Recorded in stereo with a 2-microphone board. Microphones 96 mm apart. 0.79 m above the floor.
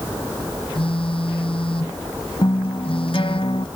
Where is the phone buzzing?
65° left (ahead or behind).